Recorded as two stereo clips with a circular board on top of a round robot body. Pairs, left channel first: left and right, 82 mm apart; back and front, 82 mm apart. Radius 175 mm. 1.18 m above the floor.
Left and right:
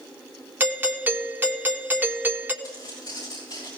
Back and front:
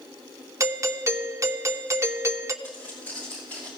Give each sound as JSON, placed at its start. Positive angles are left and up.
{"t": 0.6, "sound": "a doorbell", "azimuth_deg": -35, "distance_m": 1.2}
{"t": 2.6, "sound": "footsteps", "azimuth_deg": 115, "distance_m": 5.0}